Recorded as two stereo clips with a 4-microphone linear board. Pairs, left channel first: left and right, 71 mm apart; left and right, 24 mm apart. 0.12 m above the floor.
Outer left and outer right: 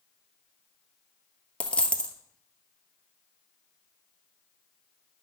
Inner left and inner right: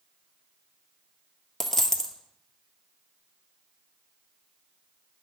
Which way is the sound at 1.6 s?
15° left (ahead or behind).